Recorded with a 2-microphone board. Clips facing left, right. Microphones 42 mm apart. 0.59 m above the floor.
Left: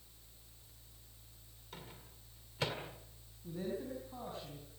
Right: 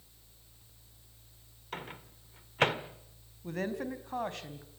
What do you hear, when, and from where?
1.7 s a microwave: 55° right (ahead or behind), 1.7 m
3.4 s a woman speaking: 75° right (ahead or behind), 3.5 m